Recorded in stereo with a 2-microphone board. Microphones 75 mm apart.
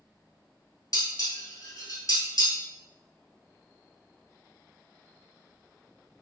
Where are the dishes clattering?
55° left (ahead or behind), 1.3 m.